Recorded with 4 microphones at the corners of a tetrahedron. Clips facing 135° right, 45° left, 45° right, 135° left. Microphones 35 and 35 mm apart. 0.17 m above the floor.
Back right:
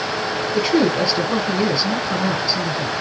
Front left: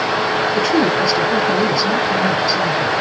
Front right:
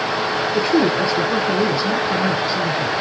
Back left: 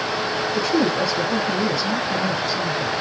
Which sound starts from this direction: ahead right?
A woman speaking, at 0.5 s.